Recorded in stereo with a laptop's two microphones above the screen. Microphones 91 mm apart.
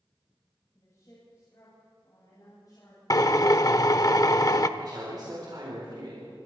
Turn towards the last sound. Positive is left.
turn(degrees=-50)  # may be behind; listen again after turning